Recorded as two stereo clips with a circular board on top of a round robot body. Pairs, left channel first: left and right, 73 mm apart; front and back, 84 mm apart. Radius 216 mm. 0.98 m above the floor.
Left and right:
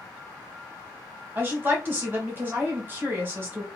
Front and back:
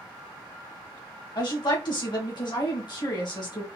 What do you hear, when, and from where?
1.4 s a woman speaking: 30° right, 1.7 m